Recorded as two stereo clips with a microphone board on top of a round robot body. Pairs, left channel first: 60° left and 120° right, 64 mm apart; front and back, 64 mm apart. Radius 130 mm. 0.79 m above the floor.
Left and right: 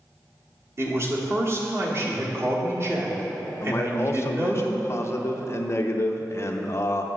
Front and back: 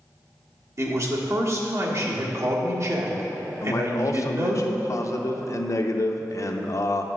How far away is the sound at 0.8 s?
About 1.5 m.